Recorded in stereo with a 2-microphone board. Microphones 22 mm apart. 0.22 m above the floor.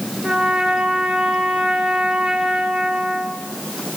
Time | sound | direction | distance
0.2 | a trumpet | 55° right (ahead or behind) | 3 m